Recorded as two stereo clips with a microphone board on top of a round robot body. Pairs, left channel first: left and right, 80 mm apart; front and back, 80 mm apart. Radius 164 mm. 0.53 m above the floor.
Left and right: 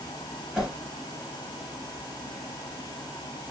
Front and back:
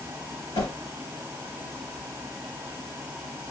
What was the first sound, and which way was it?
A whoosh, 5° right.